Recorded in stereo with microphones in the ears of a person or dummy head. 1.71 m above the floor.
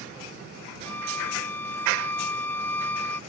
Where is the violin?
15° left (ahead or behind).